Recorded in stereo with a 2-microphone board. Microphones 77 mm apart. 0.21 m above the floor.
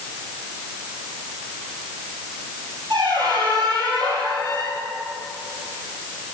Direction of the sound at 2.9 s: 80° right.